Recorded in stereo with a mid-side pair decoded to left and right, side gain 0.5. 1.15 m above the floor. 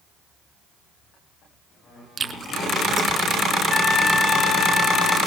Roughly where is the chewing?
Ahead right.